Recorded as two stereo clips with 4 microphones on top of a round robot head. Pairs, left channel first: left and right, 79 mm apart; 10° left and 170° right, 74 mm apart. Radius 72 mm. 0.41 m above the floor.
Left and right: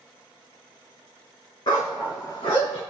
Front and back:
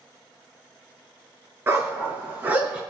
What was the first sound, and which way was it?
A dog barking, 130° left.